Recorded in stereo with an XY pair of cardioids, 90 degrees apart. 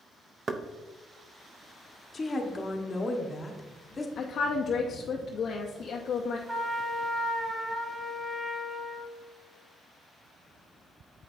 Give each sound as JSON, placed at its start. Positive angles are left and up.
{"t": 0.5, "sound": "knocking", "azimuth_deg": -45, "distance_m": 0.6}
{"t": 2.1, "sound": "a woman speaking", "azimuth_deg": 35, "distance_m": 1.2}
{"t": 4.2, "sound": "a woman speaking", "azimuth_deg": 60, "distance_m": 0.7}
{"t": 6.5, "sound": "a trumpet", "azimuth_deg": -30, "distance_m": 1.7}